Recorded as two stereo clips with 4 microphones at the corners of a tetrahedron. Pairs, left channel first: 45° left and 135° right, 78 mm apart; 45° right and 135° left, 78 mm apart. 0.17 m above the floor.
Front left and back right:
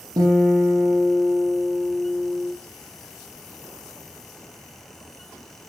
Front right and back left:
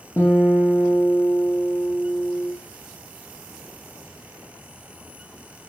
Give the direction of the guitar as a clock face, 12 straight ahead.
3 o'clock.